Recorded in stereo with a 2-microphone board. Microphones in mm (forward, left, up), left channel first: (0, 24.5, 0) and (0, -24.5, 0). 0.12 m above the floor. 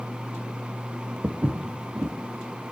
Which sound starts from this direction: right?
Footsteps, at 1.2 s.